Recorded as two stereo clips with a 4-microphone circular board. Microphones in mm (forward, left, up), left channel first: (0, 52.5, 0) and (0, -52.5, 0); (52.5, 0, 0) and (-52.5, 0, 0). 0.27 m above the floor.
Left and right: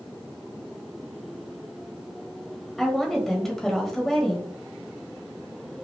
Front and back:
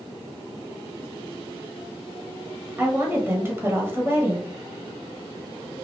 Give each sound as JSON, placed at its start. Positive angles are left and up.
{"t": 2.8, "sound": "a woman speaking", "azimuth_deg": 170, "distance_m": 1.2}